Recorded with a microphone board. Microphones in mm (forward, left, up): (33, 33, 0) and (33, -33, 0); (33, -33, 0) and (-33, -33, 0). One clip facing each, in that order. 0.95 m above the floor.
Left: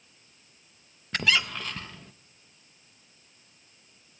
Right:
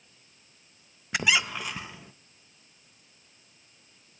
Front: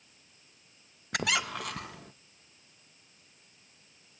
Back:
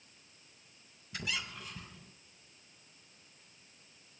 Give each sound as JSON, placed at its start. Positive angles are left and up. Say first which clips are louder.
{"t": 1.1, "sound": "a squeak", "louder": "even, front 9 dB", "azimuth_deg": -15, "distance_m": 0.5}